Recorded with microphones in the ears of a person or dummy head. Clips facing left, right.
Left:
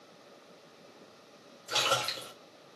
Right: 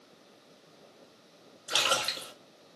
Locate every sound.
1.7 s a splash: 15° right (ahead or behind), 1.0 m